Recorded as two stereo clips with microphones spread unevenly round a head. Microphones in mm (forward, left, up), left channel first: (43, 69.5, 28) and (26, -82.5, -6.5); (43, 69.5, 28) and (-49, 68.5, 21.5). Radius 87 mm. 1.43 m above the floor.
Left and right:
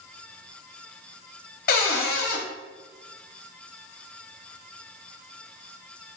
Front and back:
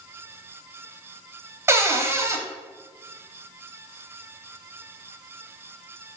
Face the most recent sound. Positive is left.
turn(degrees=125)